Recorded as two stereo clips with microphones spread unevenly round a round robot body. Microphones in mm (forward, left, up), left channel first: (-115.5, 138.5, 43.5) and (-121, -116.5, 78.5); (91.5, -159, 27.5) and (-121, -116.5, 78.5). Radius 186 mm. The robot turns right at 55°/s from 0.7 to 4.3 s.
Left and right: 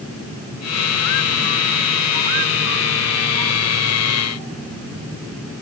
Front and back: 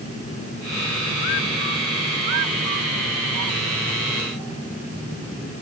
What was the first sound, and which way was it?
Only background noise.